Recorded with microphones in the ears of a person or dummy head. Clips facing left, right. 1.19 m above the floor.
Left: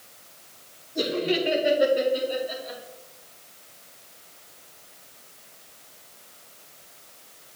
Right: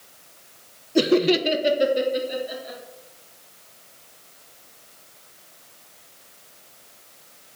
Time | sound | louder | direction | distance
0.9 | laughter | right 7 dB | 70° right (ahead or behind) | 0.9 m